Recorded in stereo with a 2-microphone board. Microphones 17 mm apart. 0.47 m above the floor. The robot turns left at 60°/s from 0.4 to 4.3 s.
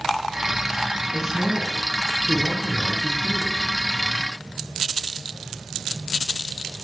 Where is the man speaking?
170° right, 8.5 m; by 3.6 s 40° left, 8.5 m.